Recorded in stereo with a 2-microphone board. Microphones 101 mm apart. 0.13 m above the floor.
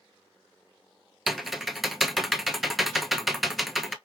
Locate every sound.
1.3 s typing on a keyboard: centre (ahead or behind), 0.7 m